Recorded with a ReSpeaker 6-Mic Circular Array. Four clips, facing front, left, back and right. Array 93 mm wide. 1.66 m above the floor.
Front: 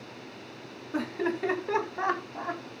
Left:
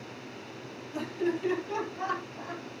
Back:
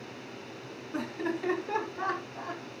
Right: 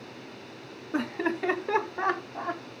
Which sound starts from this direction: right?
Laughter, at 0.9 s.